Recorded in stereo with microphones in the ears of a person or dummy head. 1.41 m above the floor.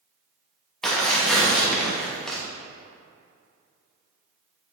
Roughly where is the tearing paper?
Centre.